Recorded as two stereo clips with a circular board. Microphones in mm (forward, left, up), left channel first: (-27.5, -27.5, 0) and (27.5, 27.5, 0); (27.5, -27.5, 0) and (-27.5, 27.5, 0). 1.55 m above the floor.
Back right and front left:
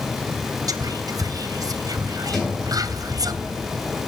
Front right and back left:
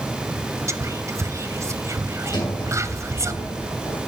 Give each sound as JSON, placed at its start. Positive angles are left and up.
{"t": 0.7, "sound": "whispering", "azimuth_deg": 85, "distance_m": 0.7}
{"t": 2.3, "sound": "a sliding door", "azimuth_deg": -50, "distance_m": 3.0}